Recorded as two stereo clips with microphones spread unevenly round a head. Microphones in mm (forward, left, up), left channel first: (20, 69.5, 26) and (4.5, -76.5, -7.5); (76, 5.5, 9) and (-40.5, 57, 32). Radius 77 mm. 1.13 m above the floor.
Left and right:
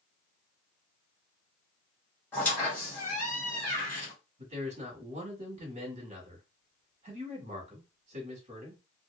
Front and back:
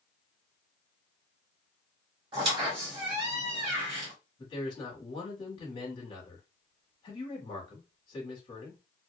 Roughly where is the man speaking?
Right.